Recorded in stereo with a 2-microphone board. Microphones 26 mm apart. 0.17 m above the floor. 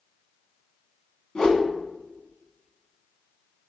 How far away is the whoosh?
About 0.7 m.